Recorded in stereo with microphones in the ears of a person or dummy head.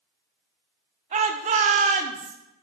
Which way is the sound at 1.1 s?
30° right (ahead or behind).